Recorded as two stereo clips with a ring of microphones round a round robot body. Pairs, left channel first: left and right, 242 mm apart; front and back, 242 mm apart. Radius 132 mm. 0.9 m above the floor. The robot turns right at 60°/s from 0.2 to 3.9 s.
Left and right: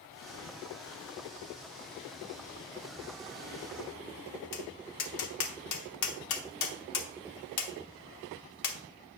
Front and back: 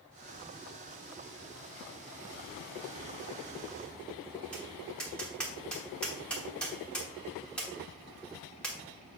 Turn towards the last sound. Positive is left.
turn(degrees=85)